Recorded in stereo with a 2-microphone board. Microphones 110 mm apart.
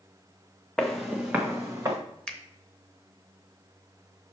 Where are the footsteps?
5° left (ahead or behind), 1.3 m; by 2.0 s 35° right (ahead or behind), 1.5 m.